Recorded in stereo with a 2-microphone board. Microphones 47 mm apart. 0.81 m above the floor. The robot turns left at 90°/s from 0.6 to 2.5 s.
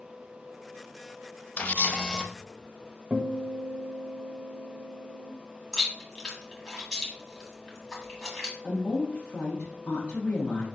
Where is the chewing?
10° left (ahead or behind), 1.5 m.